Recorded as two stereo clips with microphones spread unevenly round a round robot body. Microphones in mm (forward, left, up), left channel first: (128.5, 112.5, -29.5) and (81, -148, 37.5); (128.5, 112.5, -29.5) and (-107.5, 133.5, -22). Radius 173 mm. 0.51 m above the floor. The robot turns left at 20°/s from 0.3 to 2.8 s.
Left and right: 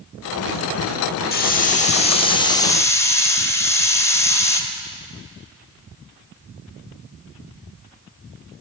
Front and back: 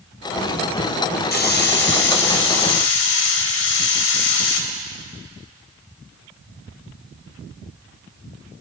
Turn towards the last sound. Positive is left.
turn(degrees=5)